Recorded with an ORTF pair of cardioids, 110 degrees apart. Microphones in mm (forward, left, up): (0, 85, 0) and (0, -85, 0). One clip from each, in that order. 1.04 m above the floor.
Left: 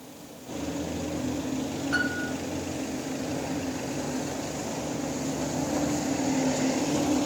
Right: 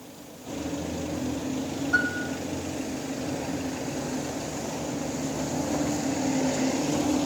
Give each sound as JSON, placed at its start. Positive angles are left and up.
{"t": 1.9, "sound": "a piano", "azimuth_deg": 50, "distance_m": 2.5}